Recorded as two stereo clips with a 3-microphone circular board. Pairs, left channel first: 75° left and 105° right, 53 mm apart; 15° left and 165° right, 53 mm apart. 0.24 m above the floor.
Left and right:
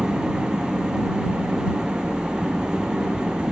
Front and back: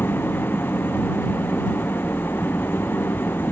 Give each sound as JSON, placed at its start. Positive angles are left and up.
{"t": 0.0, "sound": "an engine running", "azimuth_deg": -30}